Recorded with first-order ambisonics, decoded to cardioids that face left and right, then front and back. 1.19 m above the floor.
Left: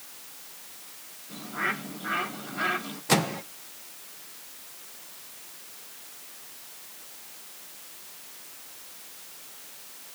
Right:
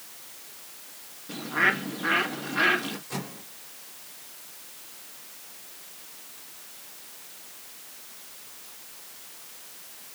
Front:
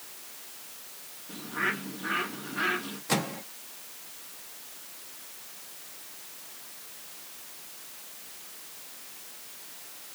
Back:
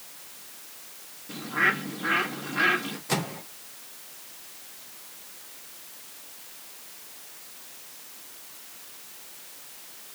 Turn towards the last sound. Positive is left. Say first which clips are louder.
# left 12 dB, front 1 dB
turn(degrees=90)